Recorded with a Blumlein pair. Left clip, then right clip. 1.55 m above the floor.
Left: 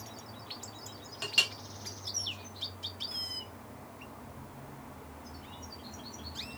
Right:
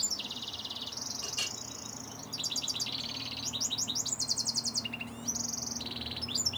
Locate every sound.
1.2 s a clink: 50° left, 3 m